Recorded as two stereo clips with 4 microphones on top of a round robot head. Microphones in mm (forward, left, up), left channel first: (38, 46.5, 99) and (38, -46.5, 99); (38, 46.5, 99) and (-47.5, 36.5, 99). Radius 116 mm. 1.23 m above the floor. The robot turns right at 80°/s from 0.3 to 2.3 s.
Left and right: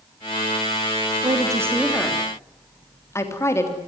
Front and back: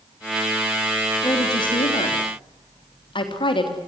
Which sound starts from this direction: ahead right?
A woman speaking, at 1.2 s.